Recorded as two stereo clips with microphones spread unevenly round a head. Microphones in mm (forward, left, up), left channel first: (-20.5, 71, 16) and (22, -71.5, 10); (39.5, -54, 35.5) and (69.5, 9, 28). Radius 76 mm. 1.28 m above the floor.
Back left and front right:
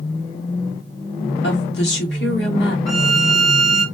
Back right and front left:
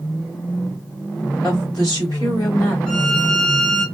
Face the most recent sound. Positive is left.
turn(degrees=-175)